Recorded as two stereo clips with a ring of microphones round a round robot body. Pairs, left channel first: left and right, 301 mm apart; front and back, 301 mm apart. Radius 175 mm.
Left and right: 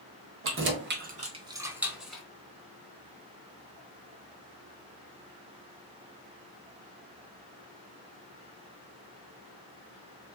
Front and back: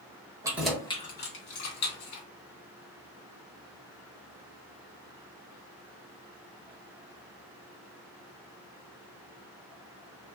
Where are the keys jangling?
105° right, 0.9 m; by 2.2 s straight ahead, 1.4 m.